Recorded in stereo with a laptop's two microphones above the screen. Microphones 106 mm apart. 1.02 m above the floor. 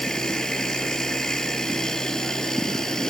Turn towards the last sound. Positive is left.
turn(degrees=5)  # may be behind; listen again after turning